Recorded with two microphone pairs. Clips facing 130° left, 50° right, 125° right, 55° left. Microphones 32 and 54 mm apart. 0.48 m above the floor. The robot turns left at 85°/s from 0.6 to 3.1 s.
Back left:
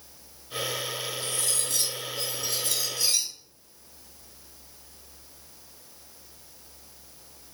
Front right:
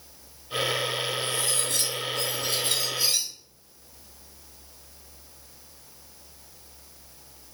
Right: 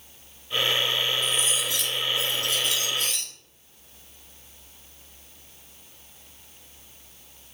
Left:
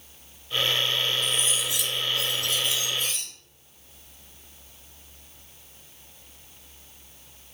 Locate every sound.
1.2 s cutlery clinking: 30° left, 2.0 m; by 3.3 s 130° right, 2.0 m